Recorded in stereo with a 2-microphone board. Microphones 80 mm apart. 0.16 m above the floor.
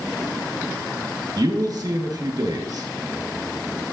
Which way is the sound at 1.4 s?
55° right (ahead or behind).